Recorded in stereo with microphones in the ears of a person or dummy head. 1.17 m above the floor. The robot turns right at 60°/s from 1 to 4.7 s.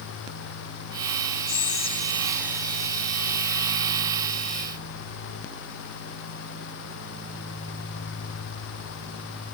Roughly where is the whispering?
Behind left.